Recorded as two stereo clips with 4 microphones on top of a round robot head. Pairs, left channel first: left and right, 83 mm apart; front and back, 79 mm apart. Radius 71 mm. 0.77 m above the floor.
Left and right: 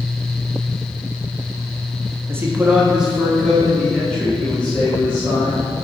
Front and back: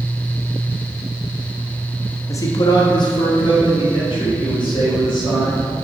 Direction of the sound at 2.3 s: 40° right.